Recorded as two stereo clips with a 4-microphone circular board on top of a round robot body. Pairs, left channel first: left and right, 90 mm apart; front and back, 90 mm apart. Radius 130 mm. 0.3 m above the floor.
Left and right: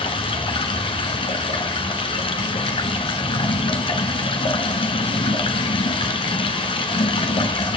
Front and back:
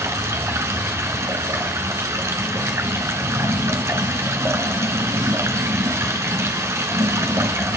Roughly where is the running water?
Behind left.